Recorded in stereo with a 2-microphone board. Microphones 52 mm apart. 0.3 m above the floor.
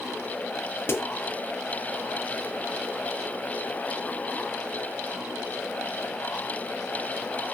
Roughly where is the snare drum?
Left.